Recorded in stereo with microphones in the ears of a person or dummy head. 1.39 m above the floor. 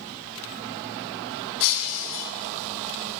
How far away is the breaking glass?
About 3.5 m.